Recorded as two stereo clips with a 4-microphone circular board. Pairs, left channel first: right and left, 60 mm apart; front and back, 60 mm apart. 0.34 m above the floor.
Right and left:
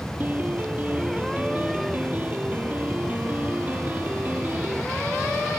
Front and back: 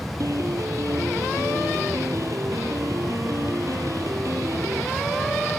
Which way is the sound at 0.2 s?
150° left.